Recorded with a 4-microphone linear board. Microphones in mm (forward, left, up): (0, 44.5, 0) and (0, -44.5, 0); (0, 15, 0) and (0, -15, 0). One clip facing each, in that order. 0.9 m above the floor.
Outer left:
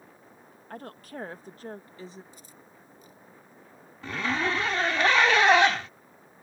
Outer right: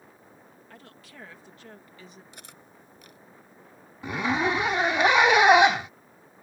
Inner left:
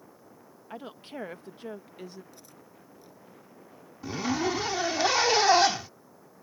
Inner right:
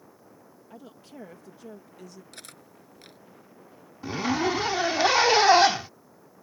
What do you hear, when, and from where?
0.7 s a woman speaking: 45° left (ahead or behind); by 2.2 s 30° left (ahead or behind)
2.3 s cutlery clinking: 80° right
4.0 s a zipper: 15° right (ahead or behind)